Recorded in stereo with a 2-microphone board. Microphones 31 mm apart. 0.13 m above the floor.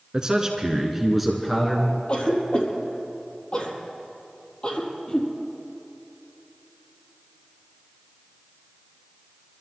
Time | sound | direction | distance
0.1 | a man speaking | 25° right (ahead or behind) | 1.9 m
2.1 | a cough | 35° left (ahead or behind) | 4 m